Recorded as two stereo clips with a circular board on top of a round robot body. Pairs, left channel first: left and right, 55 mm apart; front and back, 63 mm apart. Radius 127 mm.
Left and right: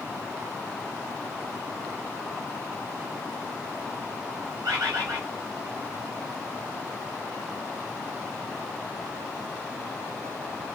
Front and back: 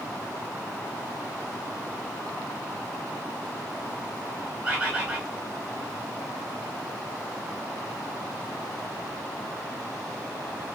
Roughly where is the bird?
Right.